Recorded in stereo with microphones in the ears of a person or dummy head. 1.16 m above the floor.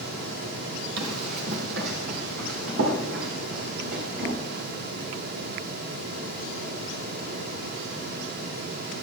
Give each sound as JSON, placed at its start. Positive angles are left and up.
{"t": 1.0, "sound": "running footsteps", "side_deg": -65, "distance_m": 3.0}